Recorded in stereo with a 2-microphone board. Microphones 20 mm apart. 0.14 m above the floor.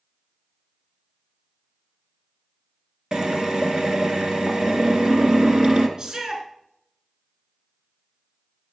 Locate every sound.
3.1 s a drill: 45° right (ahead or behind), 2.5 m
6.0 s a shout: 40° right (ahead or behind), 1.9 m